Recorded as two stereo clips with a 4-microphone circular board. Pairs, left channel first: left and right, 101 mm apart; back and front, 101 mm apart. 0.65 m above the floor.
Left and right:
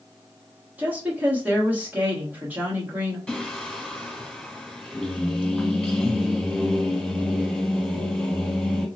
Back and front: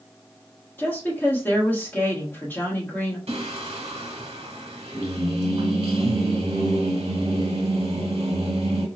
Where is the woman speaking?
140° right, 1.0 m.